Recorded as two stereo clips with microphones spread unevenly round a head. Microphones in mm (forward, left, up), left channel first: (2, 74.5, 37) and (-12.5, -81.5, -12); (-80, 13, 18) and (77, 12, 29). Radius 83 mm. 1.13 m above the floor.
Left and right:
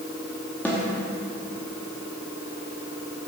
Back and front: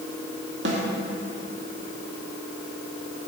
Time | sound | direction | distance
0.7 | a snare drum | straight ahead | 2 m